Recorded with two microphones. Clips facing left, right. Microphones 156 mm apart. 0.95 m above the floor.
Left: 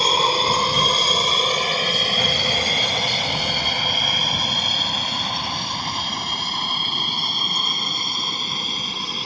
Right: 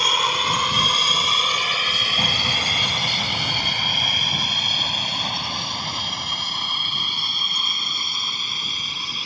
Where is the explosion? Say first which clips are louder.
Left 4 dB; 35° right (ahead or behind).